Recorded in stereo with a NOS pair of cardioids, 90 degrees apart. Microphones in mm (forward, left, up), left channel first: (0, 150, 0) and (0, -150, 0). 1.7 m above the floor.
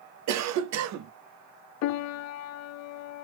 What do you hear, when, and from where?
0.3 s a cough: 70° right, 0.5 m
1.8 s a piano: 65° left, 0.5 m